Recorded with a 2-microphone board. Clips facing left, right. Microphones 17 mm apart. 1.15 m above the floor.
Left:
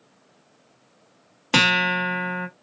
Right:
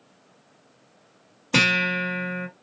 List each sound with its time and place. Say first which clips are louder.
1.5 s a guitar: left 2 dB; 60° left (ahead or behind), 1.5 m